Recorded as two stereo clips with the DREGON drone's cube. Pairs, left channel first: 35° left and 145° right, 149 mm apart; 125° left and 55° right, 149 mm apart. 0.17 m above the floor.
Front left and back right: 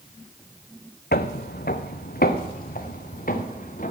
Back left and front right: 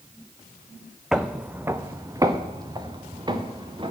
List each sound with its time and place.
1.1 s footsteps: 30° left, 0.8 m; by 3.9 s 5° left, 2.5 m